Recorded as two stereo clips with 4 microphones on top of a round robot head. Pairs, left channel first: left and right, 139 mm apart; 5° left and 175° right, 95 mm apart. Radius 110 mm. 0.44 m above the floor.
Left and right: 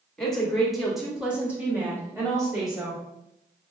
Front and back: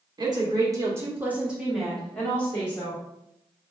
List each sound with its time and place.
0.2 s a woman speaking: 170° left, 1.7 m; by 3.0 s 30° right, 1.6 m